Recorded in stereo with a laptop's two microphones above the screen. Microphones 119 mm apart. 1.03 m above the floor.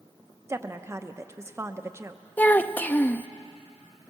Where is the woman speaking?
25° right (ahead or behind), 1.0 m.